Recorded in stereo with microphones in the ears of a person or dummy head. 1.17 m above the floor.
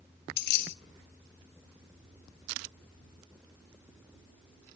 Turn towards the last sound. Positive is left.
turn(degrees=55)  # may be behind; listen again after turning